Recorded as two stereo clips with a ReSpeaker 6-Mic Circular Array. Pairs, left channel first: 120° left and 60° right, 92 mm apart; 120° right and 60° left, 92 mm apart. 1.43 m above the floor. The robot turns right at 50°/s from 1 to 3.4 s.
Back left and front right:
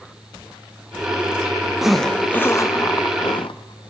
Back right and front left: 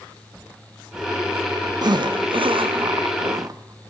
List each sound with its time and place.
1.8 s a zipper: 25° left, 0.5 m; by 3.9 s 105° left, 0.5 m